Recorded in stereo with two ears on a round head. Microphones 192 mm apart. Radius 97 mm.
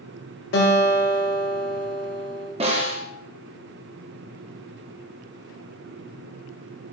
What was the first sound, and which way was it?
A guitar, 50° left (ahead or behind).